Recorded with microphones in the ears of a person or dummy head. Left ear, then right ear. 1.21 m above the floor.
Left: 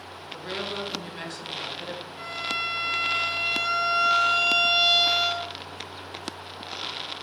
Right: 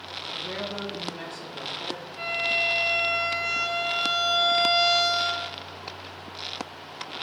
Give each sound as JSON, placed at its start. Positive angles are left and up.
{"t": 0.3, "sound": "a woman speaking", "side_deg": 40, "distance_m": 1.1}
{"t": 2.2, "sound": "a violin", "side_deg": 10, "distance_m": 1.5}